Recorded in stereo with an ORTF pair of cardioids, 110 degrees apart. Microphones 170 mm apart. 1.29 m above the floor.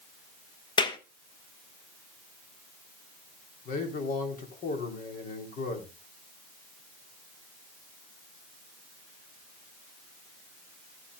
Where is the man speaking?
60° left, 3.5 m.